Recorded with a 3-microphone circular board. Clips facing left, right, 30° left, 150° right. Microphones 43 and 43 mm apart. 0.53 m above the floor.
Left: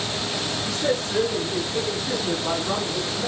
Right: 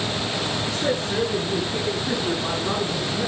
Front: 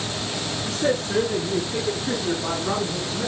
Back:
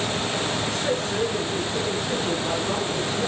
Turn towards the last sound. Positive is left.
turn(degrees=-35)